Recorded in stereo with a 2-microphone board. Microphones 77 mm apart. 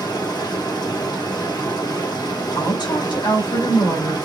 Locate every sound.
0.0 s running water: 65° left (ahead or behind), 2.5 m
2.5 s a woman speaking: 80° left, 2.5 m